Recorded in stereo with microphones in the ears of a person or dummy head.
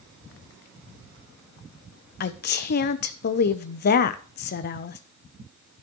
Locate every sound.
2.2 s a woman speaking: 50° left (ahead or behind), 0.9 m